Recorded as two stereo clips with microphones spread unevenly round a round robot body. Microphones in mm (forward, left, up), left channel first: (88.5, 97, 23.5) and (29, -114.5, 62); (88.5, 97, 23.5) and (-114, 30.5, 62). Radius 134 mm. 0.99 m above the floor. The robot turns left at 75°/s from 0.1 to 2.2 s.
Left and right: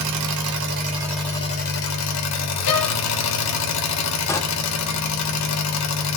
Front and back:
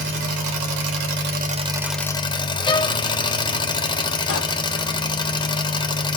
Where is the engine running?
110° right, 1.1 m; by 6.2 s 90° left, 1.1 m.